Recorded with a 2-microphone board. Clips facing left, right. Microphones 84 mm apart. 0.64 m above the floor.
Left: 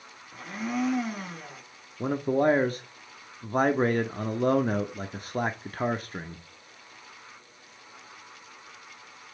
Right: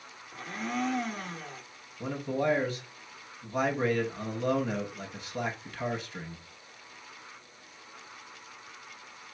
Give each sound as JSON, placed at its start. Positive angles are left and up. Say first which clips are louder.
{"t": 0.3, "sound": "a blender", "louder": "left 3 dB", "side_deg": 5, "distance_m": 1.0}
{"t": 2.0, "sound": "a man speaking", "louder": "left 6 dB", "side_deg": 45, "distance_m": 0.9}